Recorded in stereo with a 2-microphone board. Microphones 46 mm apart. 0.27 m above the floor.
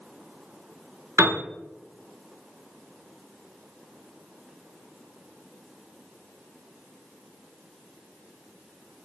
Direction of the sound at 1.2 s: 85° right.